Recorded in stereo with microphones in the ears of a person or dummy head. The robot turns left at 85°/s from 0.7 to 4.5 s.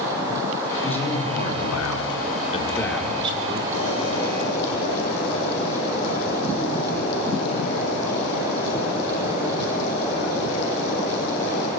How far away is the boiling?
About 9.5 m.